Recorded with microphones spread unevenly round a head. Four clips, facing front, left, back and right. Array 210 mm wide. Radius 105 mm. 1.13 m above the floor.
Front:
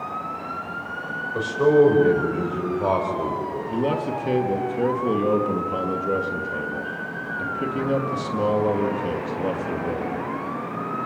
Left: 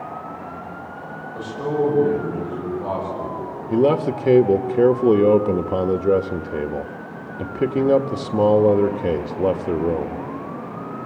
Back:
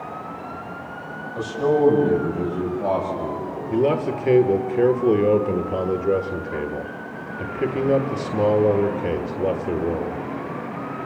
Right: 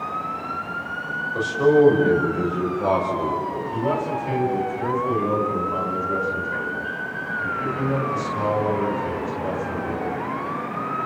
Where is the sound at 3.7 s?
100° left, 1.6 m.